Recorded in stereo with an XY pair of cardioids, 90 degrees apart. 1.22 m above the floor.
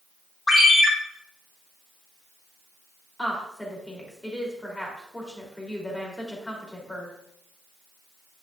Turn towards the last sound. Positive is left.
turn(degrees=15)